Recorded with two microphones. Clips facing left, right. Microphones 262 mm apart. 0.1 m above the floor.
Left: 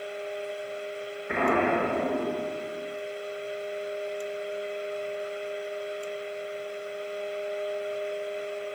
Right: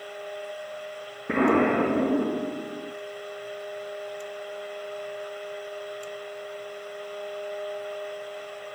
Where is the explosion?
65° right (ahead or behind), 1.4 m.